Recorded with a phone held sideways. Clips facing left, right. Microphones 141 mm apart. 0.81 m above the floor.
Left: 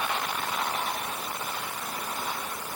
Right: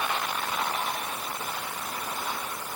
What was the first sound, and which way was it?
Only background noise.